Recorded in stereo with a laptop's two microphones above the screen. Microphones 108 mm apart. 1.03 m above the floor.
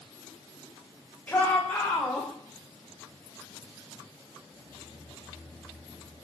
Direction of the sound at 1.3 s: 10° left (ahead or behind).